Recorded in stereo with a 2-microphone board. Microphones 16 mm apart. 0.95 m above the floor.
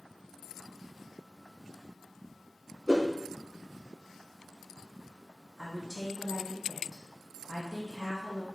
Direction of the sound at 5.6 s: 15° left (ahead or behind).